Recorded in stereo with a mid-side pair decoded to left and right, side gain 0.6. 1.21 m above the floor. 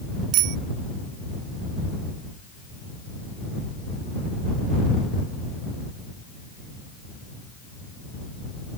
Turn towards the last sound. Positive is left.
turn(degrees=-70)